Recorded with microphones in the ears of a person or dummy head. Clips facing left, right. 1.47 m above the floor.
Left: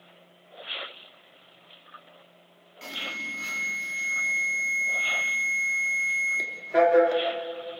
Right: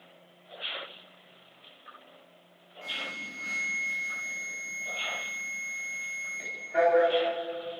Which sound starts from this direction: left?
An alarm, at 2.8 s.